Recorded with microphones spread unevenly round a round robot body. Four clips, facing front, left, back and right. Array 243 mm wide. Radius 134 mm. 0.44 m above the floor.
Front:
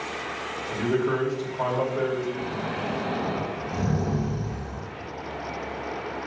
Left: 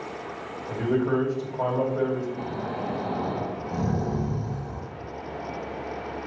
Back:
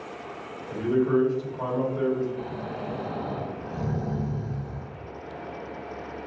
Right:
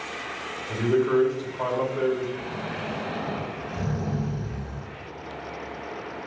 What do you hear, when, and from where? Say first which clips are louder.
0.7 s a man speaking: right 2 dB, back 2 dB; 65° left, 2 m
2.4 s snoring: left 2 dB, front 3 dB; 60° left, 1.8 m